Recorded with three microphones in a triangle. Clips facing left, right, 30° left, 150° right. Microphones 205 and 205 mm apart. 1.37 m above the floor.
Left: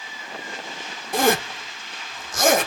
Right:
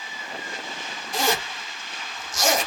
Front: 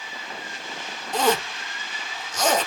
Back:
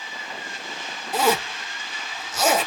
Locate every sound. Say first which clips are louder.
1.1 s a zipper: left 6 dB, even; 130° left, 0.6 m